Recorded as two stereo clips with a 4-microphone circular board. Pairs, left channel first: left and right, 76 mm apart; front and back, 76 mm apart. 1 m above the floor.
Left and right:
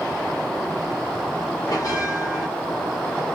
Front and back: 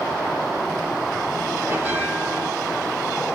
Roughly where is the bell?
Behind left.